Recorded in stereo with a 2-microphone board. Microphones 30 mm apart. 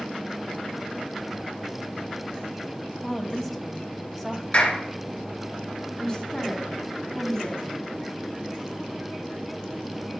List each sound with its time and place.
3.0 s a woman speaking: centre (ahead or behind), 1.0 m
4.5 s a clap: 40° left (ahead or behind), 2.5 m
6.0 s a woman speaking: 10° left (ahead or behind), 2 m